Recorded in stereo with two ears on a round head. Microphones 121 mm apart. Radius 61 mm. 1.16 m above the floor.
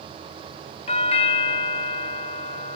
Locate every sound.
0.9 s a doorbell: 45° left (ahead or behind)